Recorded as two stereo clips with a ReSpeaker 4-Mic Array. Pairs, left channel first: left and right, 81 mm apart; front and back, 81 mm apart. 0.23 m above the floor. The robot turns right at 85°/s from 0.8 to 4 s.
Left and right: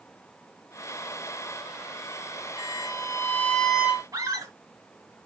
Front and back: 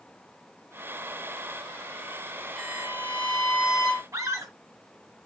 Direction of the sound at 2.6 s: 90° left.